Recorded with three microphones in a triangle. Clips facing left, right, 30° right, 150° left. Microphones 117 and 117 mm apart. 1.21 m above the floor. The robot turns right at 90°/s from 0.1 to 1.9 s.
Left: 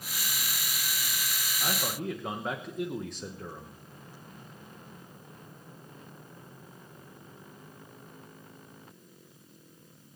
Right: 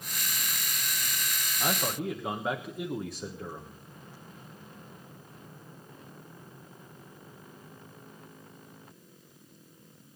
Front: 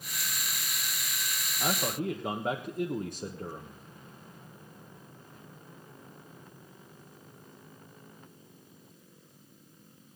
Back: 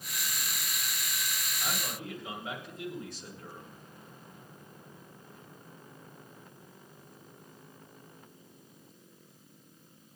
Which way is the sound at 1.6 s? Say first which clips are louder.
Right 3 dB, front 8 dB; 35° right.